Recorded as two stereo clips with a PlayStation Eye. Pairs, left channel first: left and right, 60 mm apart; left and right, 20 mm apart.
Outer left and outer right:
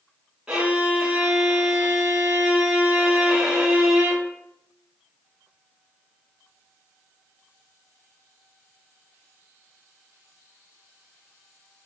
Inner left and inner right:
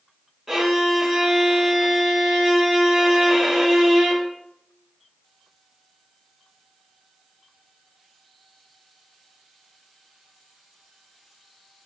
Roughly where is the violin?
Centre.